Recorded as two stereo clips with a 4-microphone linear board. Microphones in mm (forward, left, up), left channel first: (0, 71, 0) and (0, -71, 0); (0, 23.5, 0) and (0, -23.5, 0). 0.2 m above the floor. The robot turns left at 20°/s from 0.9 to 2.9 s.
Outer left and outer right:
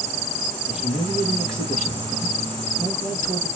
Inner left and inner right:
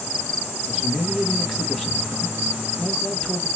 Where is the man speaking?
175° right, 1.7 m; by 3.5 s 145° left, 1.7 m.